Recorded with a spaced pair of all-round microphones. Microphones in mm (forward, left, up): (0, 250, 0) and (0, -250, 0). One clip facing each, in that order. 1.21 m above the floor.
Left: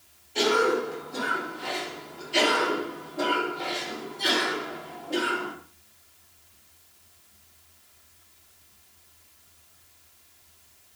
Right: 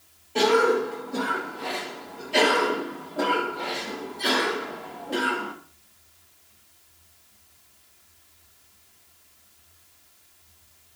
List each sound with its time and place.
0.3 s a cough: 70° right (ahead or behind), 2 m